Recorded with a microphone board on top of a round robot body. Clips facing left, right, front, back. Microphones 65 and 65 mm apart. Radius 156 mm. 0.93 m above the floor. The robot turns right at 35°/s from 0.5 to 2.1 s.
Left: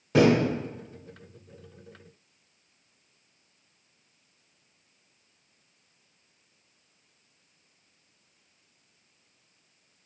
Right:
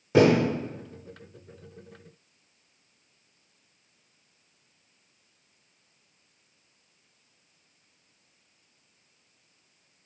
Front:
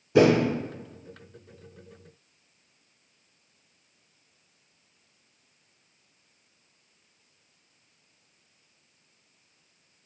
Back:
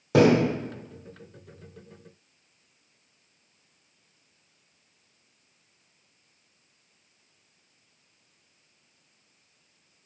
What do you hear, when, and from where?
0.1 s a thud: 170° right, 1.9 m